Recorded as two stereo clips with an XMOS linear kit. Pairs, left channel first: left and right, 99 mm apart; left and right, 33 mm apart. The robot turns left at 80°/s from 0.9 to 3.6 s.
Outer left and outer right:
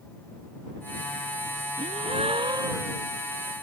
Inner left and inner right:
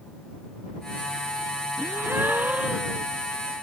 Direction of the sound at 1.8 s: 75° right.